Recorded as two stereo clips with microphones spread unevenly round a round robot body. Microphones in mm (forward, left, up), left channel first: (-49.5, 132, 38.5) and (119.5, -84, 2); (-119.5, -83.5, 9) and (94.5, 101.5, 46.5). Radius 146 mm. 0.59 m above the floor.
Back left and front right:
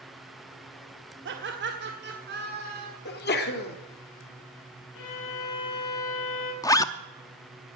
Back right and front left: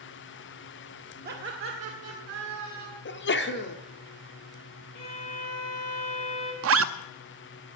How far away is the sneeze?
About 1.4 m.